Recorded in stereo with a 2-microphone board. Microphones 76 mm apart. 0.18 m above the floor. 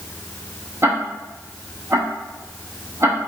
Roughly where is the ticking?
Right.